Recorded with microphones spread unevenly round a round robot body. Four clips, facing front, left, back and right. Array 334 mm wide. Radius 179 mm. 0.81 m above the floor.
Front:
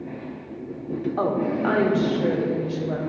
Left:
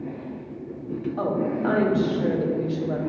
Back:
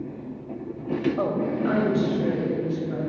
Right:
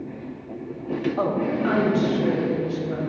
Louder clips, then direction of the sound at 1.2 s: Left 1 dB, front 2 dB; 5° right.